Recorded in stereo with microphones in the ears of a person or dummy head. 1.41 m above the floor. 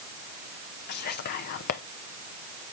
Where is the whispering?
55° left (ahead or behind), 0.6 m.